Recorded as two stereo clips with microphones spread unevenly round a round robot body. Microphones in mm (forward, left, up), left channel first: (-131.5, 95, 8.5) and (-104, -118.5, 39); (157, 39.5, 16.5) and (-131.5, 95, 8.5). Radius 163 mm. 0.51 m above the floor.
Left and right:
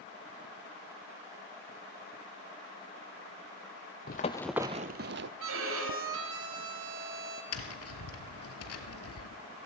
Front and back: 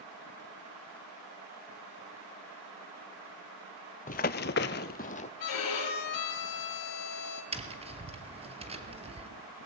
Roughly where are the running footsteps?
Ahead left.